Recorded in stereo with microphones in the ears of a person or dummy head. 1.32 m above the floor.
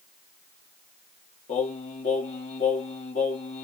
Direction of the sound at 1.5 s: 35° left (ahead or behind).